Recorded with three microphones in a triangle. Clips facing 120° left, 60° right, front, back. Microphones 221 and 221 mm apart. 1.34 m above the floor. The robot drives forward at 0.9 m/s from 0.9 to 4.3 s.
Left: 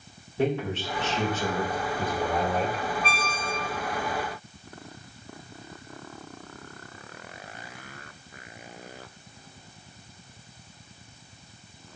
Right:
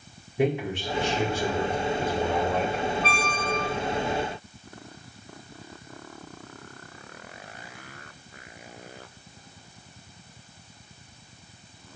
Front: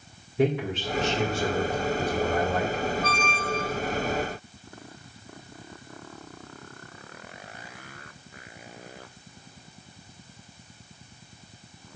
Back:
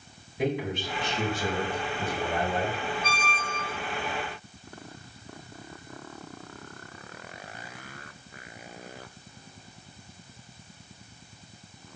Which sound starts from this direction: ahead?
A man speaking, at 0.4 s.